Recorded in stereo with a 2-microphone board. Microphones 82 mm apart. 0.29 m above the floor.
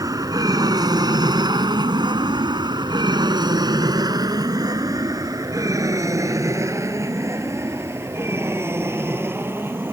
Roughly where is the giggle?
No giggle in this recording.